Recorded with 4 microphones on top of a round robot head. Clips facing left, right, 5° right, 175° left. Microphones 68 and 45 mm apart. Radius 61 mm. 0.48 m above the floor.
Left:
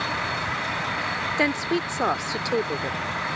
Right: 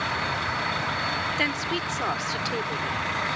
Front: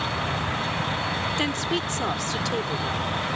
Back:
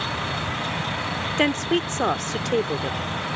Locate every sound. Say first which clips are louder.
1.4 s a woman speaking: left 4 dB, back 4 dB; 145° left